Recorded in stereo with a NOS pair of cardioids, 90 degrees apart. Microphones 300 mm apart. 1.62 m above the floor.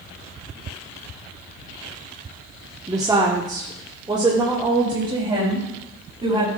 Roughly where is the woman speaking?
Ahead.